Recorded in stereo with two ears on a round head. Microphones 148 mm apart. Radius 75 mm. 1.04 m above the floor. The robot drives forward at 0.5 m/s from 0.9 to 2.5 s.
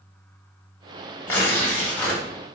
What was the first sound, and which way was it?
Tearing paper, 15° left (ahead or behind).